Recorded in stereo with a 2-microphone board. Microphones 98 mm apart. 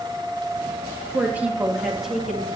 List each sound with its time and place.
1.1 s a woman speaking: 20° right (ahead or behind), 2.5 m; by 2.5 s 5° left (ahead or behind), 3 m